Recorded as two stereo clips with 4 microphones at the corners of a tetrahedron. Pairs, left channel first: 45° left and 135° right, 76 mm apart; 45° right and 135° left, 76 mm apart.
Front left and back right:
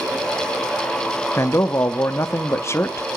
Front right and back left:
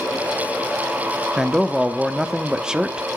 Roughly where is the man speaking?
Ahead left.